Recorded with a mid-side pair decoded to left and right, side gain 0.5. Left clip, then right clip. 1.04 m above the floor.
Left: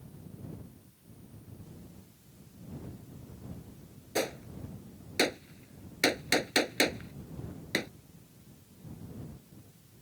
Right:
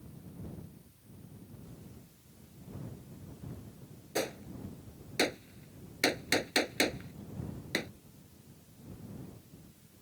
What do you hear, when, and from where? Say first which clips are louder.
4.2 s a gunshot: left 2 dB; 10° left